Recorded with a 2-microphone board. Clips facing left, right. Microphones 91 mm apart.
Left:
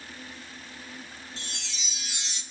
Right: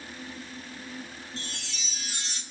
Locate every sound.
1.4 s a chime: 40° right (ahead or behind), 0.6 m